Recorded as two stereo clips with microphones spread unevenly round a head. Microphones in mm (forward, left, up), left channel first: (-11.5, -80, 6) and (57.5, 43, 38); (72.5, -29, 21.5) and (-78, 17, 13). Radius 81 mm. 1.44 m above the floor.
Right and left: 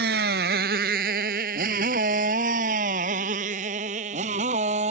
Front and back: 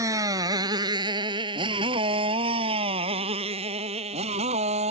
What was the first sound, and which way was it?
A motorcycle, 90° left.